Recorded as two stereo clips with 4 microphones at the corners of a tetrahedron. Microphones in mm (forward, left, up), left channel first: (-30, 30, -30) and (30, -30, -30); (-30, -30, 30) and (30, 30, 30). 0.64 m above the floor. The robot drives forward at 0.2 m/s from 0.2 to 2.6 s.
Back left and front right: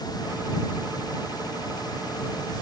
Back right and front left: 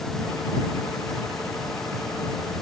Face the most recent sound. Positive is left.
No sound to turn to.